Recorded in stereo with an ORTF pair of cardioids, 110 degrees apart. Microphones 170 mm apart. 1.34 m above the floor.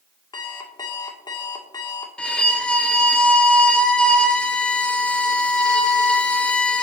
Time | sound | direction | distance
0.3 | an alarm clock | 25° left | 1.9 m
2.2 | a violin | 5° left | 1.1 m